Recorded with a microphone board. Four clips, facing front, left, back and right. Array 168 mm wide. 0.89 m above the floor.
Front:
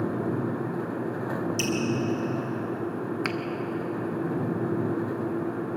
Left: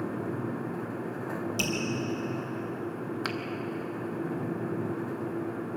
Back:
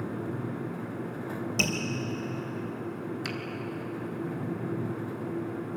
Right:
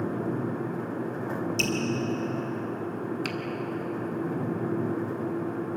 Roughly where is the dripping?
Behind.